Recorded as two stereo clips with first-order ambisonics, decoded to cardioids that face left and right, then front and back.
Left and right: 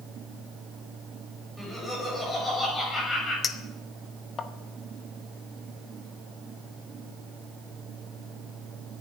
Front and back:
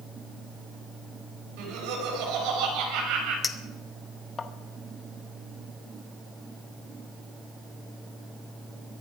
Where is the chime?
No chime in this recording.